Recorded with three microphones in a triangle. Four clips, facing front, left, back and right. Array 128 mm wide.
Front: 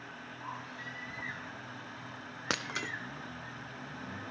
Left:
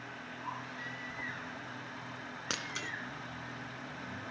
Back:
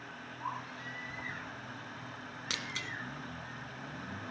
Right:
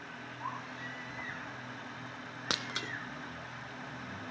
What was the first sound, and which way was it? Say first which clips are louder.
A baby crying: right 2 dB, back 3 dB; 115° right.